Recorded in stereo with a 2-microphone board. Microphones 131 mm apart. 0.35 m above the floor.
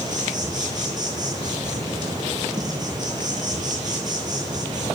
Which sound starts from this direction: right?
An insect, at 0.0 s.